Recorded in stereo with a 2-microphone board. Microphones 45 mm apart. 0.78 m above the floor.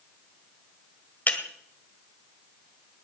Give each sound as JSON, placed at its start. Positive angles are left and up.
{"t": 1.3, "sound": "breaking glass", "side_deg": 35, "distance_m": 1.9}